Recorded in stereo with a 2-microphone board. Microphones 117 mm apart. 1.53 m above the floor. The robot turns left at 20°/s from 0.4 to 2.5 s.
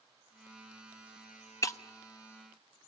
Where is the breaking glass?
25° left (ahead or behind), 0.9 m.